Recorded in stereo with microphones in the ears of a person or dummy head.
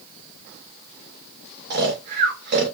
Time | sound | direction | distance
1.7 | snoring | 55° right (ahead or behind) | 0.8 m